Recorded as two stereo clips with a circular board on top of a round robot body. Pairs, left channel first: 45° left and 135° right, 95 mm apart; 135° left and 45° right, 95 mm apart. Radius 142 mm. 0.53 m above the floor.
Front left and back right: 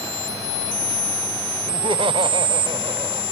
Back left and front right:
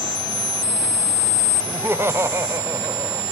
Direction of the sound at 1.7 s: 115° right.